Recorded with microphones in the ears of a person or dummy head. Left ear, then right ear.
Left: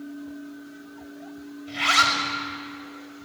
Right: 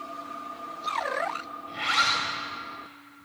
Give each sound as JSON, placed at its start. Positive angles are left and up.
{"t": 1.7, "sound": "a zipper", "side_deg": 15, "distance_m": 6.5}